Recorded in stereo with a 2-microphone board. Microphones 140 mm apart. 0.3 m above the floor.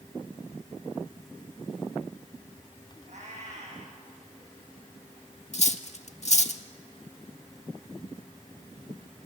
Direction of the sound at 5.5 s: 50° left (ahead or behind).